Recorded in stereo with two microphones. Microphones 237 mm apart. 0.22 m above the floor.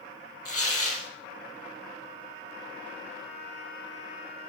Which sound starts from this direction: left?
Tearing paper, at 0.5 s.